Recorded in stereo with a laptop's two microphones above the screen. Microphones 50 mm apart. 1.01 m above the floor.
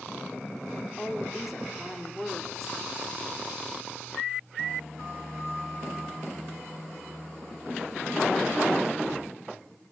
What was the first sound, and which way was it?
A woman speaking, 5° right (ahead or behind).